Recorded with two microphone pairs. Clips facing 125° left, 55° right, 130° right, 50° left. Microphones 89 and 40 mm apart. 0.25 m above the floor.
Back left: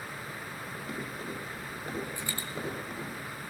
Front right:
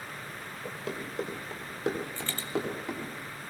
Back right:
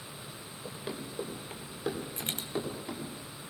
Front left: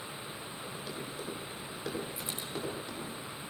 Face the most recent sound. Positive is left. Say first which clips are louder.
# even, back right 2 dB
turn(degrees=-155)